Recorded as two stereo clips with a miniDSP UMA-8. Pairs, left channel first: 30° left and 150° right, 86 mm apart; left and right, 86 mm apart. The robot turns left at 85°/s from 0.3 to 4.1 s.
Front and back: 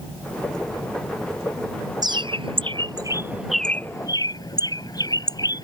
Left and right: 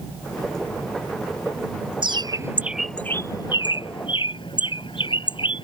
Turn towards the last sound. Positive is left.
turn(degrees=70)